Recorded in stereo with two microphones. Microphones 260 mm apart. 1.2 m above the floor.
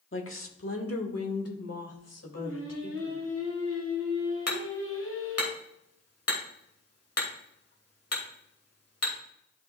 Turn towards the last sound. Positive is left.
turn(degrees=70)  # may be behind; listen again after turning